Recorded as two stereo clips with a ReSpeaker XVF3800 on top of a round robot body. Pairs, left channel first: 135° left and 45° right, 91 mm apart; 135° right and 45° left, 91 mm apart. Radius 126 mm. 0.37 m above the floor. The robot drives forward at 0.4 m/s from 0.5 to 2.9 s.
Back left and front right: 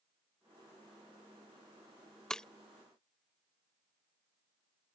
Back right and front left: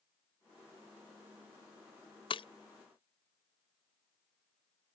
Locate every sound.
2.3 s breaking glass: 140° right; by 2.5 s 145° right